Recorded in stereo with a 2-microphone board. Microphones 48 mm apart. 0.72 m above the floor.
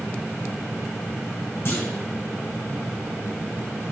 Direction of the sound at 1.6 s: 55° left (ahead or behind).